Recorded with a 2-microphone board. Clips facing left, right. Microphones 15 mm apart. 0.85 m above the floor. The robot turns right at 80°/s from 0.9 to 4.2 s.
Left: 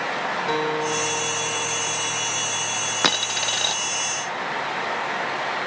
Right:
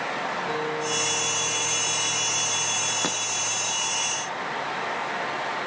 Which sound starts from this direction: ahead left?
A guitar, at 0.5 s.